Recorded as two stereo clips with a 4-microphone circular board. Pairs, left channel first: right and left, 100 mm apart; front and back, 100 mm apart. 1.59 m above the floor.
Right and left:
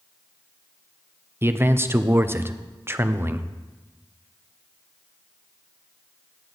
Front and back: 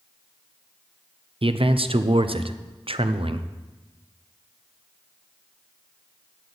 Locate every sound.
1.4 s a man speaking: 155° left, 0.6 m